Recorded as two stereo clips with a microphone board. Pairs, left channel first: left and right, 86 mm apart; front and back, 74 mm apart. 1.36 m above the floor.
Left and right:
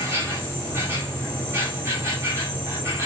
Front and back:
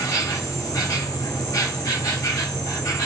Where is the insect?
30° right, 1.8 m.